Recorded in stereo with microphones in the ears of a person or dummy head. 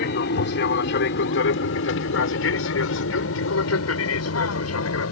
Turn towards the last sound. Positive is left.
turn(degrees=80)